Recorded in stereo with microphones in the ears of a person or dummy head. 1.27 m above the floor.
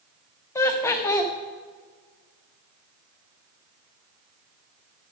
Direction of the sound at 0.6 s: 15° left (ahead or behind).